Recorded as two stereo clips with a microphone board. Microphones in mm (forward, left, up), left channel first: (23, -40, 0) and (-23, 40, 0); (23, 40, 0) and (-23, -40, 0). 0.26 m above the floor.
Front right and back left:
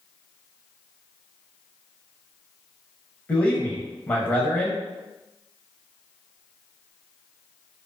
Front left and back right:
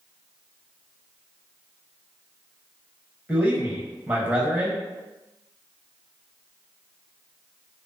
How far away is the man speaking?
About 1.0 m.